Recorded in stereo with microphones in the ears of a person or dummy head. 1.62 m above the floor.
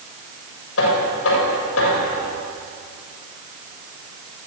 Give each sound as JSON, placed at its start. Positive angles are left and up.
{"t": 0.8, "sound": "knocking", "side_deg": 80, "distance_m": 6.5}